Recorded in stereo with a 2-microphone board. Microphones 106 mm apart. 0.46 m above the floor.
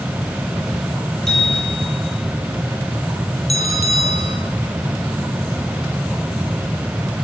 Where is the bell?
85° left, 4.5 m.